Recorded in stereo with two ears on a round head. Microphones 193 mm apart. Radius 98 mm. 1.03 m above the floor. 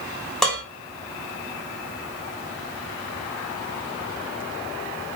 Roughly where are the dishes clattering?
Centre.